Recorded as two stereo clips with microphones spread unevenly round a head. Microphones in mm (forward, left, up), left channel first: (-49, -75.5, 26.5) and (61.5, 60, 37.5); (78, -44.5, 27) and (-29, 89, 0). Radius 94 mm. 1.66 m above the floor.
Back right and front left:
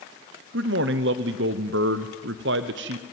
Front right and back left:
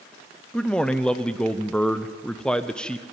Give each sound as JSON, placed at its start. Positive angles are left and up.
{"t": 0.5, "sound": "a man speaking", "azimuth_deg": 30, "distance_m": 0.7}